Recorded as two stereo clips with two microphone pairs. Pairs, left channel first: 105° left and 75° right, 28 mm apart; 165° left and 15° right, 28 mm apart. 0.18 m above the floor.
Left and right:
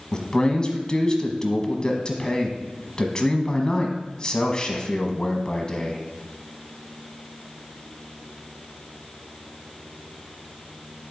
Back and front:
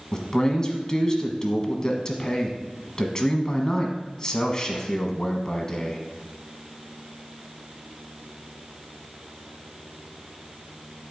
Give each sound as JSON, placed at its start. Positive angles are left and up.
{"t": 0.1, "sound": "a man speaking", "azimuth_deg": 130, "distance_m": 1.2}